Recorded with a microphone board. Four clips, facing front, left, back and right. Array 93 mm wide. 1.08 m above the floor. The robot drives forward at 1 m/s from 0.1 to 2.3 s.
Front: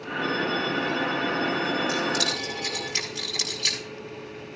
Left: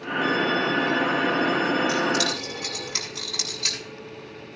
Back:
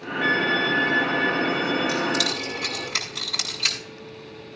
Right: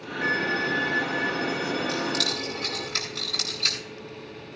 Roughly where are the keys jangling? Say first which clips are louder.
Left 5 dB, back 2 dB; behind.